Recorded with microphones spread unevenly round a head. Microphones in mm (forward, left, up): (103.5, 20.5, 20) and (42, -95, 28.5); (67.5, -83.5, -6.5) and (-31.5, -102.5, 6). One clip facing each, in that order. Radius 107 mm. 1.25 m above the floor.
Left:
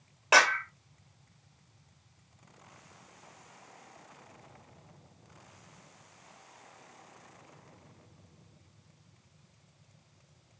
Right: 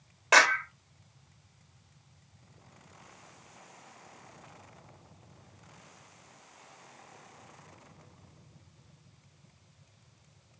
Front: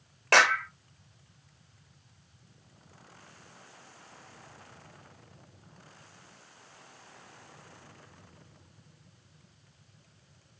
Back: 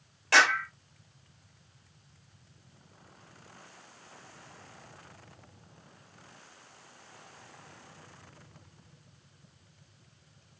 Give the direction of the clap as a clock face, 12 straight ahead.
1 o'clock.